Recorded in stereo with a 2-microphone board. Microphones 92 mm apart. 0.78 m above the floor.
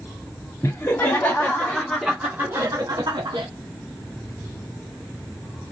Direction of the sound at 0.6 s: 35° left (ahead or behind).